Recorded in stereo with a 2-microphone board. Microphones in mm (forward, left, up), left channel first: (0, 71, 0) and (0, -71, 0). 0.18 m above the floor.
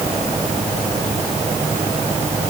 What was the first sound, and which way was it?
Only background noise.